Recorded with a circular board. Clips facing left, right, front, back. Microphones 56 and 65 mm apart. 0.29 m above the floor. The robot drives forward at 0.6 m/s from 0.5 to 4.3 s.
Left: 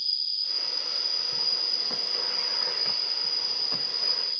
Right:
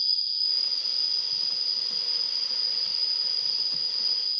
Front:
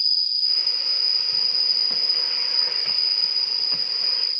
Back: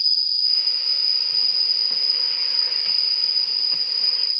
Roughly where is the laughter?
I don't hear laughter.